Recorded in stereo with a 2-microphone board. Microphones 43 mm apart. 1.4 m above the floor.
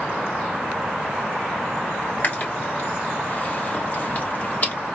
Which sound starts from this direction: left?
Chewing, at 2.2 s.